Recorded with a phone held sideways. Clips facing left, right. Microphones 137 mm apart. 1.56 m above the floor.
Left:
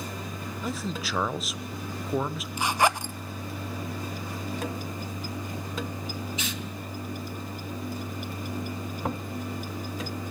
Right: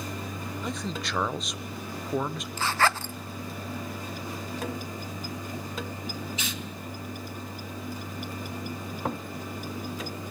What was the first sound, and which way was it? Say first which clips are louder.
A man speaking: left 2 dB; 5° left (ahead or behind).